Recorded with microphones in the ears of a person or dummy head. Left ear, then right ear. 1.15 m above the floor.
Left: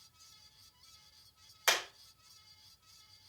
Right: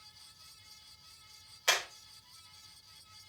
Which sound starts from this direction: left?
Hammering, at 1.7 s.